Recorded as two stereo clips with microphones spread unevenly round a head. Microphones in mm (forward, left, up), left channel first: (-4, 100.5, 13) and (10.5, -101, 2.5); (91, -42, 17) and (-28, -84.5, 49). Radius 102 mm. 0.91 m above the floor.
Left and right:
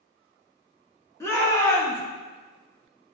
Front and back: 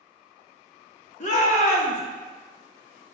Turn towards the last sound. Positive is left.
turn(degrees=20)